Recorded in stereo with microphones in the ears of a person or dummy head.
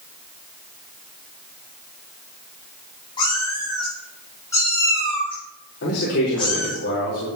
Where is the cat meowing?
25° left (ahead or behind), 5 m; by 6.8 s 5° left (ahead or behind), 6.5 m.